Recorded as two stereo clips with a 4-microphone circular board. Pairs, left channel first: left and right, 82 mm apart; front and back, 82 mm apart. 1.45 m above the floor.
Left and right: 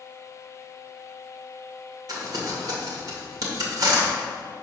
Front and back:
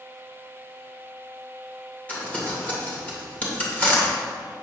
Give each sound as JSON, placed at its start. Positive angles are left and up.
{"t": 2.1, "sound": "crumpling", "azimuth_deg": -70, "distance_m": 1.9}